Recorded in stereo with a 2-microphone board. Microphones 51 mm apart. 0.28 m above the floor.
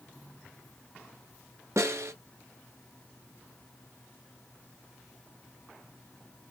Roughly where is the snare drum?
Right.